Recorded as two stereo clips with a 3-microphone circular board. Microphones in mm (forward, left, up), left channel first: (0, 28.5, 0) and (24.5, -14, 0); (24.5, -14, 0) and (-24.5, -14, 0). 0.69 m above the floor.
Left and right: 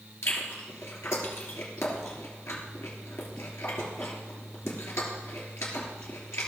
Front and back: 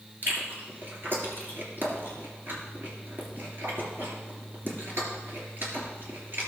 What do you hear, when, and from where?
0.2 s chewing: 135° left, 2.5 m